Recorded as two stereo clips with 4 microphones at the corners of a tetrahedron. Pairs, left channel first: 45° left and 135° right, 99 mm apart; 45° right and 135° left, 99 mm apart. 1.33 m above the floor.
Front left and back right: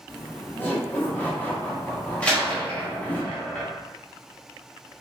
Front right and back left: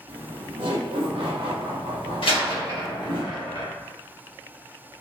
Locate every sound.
0.1 s laughter: 115° left, 1.1 m
2.2 s a door slam: 30° right, 1.2 m